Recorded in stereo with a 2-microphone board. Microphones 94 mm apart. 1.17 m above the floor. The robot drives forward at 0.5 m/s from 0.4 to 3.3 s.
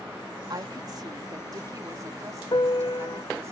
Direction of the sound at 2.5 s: 55° left (ahead or behind).